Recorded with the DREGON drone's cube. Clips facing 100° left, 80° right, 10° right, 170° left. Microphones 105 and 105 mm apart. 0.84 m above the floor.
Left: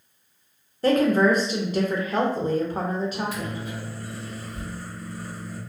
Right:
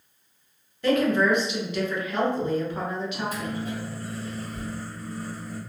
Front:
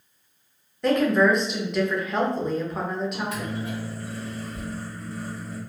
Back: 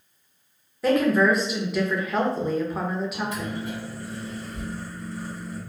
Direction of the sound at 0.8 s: 85° left.